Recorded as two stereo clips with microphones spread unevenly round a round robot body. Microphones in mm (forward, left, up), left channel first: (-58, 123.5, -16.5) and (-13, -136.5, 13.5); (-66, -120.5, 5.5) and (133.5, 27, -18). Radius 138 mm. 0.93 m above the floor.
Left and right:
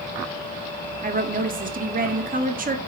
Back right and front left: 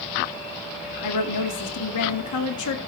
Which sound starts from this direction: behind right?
A woman speaking, at 1.0 s.